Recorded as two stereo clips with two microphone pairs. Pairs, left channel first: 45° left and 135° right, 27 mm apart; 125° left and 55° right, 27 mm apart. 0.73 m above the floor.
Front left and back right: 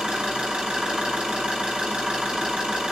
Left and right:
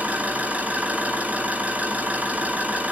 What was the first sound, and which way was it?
An engine running, 85° right.